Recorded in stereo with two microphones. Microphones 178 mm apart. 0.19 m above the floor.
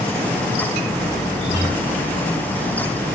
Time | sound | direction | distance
1.4 | a guitar | 35° left (ahead or behind) | 4 m